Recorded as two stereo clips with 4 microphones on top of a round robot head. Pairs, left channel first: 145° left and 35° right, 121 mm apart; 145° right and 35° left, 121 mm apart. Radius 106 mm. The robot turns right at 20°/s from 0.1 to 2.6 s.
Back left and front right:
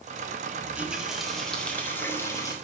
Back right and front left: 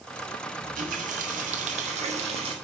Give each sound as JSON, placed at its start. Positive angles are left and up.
{"t": 0.6, "sound": "a running tap", "azimuth_deg": 40, "distance_m": 1.3}